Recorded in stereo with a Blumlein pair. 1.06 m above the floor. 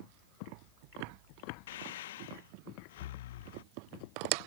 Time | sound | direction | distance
1.7 | breathing | 55° left | ?